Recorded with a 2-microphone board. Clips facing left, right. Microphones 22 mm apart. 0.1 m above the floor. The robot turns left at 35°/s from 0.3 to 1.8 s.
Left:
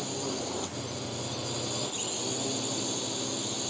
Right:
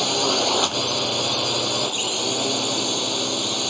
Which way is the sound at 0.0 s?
75° right.